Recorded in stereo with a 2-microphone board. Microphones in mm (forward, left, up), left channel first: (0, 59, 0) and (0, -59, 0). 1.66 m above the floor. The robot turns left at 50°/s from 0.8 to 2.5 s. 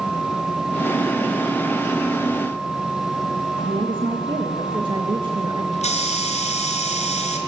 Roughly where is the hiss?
Left.